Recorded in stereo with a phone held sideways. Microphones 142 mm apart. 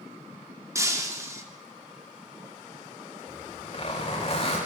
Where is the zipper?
45° left (ahead or behind), 7.5 m.